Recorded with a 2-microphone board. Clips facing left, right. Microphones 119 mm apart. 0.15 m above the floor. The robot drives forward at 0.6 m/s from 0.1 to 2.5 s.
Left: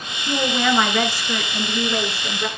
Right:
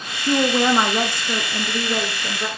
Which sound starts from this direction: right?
A woman speaking, at 0.3 s.